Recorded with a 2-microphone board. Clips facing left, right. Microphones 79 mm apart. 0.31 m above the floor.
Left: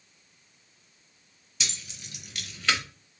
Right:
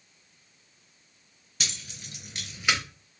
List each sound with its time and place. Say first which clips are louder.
1.6 s keys jangling: right 1 dB; 55° right (ahead or behind), 1.0 m; by 2.8 s 10° right (ahead or behind), 0.7 m